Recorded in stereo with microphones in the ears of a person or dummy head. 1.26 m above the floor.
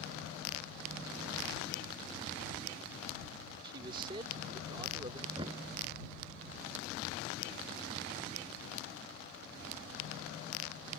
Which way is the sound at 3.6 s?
25° right (ahead or behind).